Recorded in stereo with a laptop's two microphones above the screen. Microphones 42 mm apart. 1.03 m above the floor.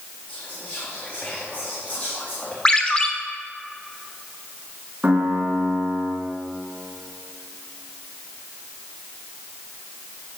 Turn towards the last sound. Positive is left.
turn(degrees=-30)  # may be behind; listen again after turning